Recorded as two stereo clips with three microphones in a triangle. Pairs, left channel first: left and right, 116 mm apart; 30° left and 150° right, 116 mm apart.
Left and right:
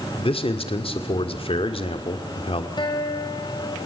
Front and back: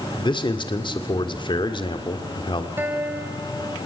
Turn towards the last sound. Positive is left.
turn(degrees=140)